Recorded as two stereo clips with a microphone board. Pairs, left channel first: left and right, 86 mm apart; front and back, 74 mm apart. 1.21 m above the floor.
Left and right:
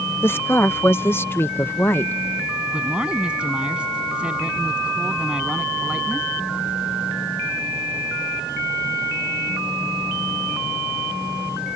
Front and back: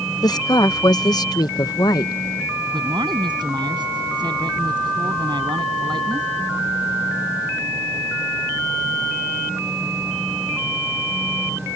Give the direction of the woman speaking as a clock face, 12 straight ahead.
11 o'clock.